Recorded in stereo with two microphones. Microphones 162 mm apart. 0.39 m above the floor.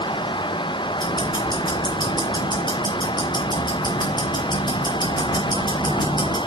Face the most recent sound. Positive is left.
turn(degrees=25)  # may be behind; listen again after turning